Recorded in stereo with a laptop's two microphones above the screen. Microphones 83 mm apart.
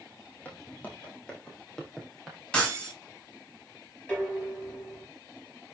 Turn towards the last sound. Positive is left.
turn(degrees=15)  # may be behind; listen again after turning